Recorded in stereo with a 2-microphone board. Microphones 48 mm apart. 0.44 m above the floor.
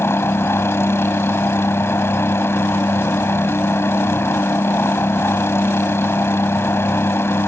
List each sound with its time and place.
0.0 s a helicopter: 60° left (ahead or behind)